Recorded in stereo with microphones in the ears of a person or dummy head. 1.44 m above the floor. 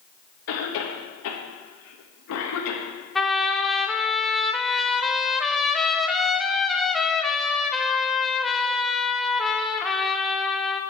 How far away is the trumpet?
About 0.6 m.